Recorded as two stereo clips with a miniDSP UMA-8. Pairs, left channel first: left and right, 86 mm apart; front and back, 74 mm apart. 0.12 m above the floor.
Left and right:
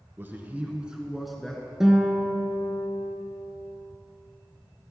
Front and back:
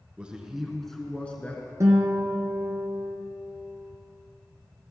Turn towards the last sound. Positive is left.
turn(degrees=-170)